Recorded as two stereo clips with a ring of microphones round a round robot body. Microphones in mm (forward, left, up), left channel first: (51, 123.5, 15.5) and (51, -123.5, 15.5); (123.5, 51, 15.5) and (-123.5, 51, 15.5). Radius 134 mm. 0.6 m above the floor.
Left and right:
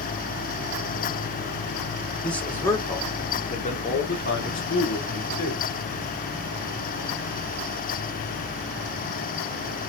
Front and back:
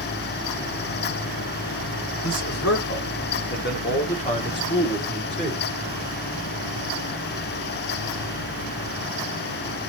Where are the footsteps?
No footsteps in this recording.